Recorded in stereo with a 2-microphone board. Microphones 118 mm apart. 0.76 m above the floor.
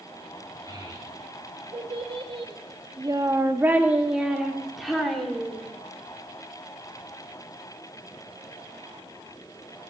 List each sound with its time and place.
0.7 s a child speaking: 35° right (ahead or behind), 1.6 m; by 5.6 s 5° left (ahead or behind), 2 m